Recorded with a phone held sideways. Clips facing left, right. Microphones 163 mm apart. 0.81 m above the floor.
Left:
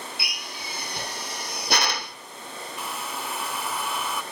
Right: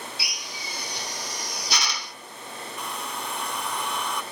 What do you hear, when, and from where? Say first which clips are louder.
0.2 s a drill: left 1 dB; 60° left (ahead or behind), 0.9 m
2.8 s a hair dryer: even; 5° left (ahead or behind), 0.8 m